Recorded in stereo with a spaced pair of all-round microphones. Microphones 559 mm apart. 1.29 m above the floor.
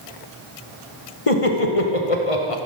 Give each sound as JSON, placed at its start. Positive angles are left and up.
{"t": 1.3, "sound": "laughter", "side_deg": 70, "distance_m": 0.9}